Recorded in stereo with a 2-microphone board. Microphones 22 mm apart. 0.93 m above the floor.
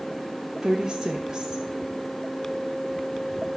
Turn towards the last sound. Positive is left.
turn(degrees=-30)  # may be behind; listen again after turning